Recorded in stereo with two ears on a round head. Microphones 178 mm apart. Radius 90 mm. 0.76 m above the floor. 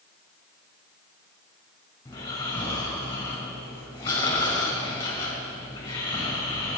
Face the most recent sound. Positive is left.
turn(degrees=15)  # may be behind; listen again after turning